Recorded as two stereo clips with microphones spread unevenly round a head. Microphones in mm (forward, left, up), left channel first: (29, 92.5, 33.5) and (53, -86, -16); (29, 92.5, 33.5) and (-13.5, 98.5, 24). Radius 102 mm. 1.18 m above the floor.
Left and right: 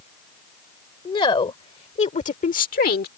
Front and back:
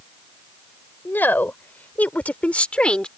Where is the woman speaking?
35° left; by 3.1 s 60° left.